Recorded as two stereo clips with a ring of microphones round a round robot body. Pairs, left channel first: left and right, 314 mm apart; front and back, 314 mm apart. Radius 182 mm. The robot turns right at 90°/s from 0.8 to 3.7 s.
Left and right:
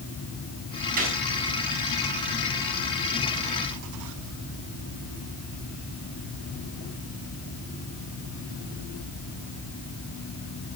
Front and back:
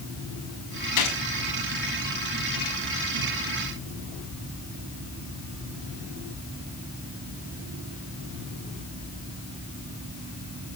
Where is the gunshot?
25° right, 5 m; by 1.2 s 5° right, 5 m.